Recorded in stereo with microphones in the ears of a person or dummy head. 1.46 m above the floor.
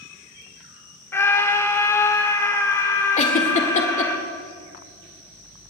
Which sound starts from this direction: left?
A giggle, at 3.2 s.